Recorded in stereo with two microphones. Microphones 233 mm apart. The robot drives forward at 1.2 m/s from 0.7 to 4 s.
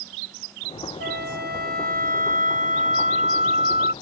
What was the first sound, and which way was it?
A flute, 50° right (ahead or behind).